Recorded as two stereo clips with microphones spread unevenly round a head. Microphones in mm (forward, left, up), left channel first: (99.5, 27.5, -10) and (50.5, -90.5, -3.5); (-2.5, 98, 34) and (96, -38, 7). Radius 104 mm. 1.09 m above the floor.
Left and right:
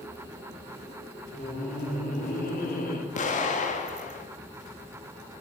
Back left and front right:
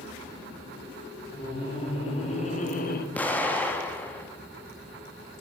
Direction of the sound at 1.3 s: 65° left.